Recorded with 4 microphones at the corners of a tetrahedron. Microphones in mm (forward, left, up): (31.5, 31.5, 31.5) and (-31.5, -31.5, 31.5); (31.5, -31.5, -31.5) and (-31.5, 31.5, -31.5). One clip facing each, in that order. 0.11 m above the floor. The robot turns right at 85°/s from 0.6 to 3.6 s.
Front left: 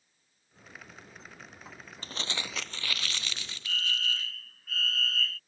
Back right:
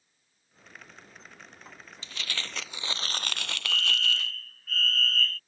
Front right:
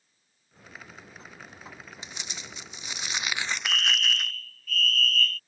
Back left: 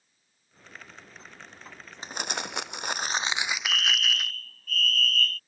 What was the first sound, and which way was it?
Crumpling, 90° left.